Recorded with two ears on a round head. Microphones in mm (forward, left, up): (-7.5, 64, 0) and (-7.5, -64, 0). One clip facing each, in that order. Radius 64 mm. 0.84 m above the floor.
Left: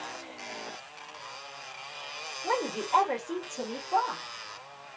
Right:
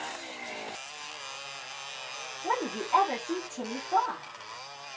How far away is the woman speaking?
About 1.5 m.